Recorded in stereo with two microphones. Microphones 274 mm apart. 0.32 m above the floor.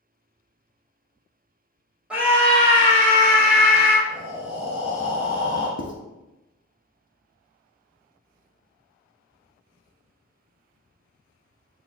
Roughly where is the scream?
Centre.